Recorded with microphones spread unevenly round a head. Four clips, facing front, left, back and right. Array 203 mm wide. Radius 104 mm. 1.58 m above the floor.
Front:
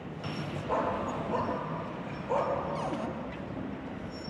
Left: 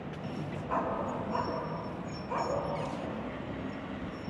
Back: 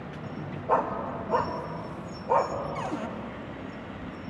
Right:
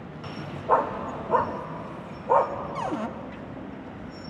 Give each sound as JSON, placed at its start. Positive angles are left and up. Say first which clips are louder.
{"t": 0.7, "sound": "a dog barking", "louder": "right 9 dB, back 4 dB", "azimuth_deg": -110, "distance_m": 2.0}
{"t": 2.8, "sound": "a cupboard door", "louder": "right 7 dB, back 1 dB", "azimuth_deg": -100, "distance_m": 1.2}